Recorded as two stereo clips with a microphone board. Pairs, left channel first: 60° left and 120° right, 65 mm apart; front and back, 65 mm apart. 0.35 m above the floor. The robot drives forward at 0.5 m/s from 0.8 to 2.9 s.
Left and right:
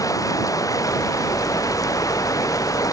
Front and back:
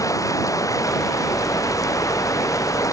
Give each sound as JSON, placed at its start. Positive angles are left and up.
{"t": 0.0, "sound": "running water", "azimuth_deg": 30}